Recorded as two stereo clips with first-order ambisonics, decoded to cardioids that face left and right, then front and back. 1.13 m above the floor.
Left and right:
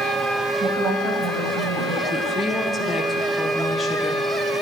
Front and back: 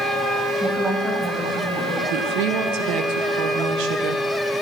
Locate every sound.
0.6 s a woman speaking: 130° right, 5.5 m
2.1 s a woman speaking: 165° left, 0.9 m